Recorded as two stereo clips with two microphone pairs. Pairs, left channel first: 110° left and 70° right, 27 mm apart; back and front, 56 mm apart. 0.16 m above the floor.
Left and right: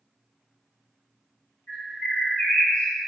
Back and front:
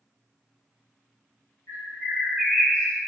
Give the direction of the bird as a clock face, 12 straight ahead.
8 o'clock.